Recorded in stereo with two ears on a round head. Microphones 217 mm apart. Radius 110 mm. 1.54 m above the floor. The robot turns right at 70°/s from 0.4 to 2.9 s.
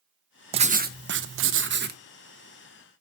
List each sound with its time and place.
0.5 s writing: 150° right, 0.8 m; by 2.0 s 45° right, 0.8 m